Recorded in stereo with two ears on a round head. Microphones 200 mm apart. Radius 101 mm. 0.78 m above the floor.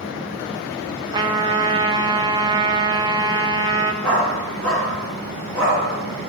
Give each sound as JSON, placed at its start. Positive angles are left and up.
{"t": 1.1, "sound": "a trumpet", "side_deg": -20, "distance_m": 0.6}
{"t": 4.0, "sound": "a dog barking", "side_deg": 5, "distance_m": 4.0}